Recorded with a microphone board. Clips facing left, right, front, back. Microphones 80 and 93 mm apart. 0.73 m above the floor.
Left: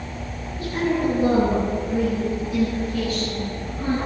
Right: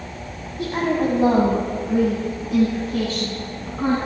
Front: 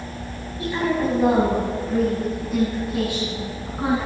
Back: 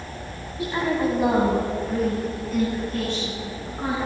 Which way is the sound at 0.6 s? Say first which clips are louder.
Right 1 dB, front 1 dB; 110° right.